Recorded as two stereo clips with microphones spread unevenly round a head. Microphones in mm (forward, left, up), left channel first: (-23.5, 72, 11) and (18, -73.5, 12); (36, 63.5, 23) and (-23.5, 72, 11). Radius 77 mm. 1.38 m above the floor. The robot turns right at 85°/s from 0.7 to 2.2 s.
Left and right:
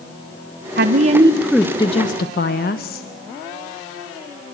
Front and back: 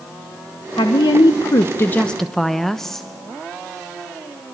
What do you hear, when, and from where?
0.8 s a woman speaking: 50° right, 1.0 m; by 3.1 s 75° left, 1.0 m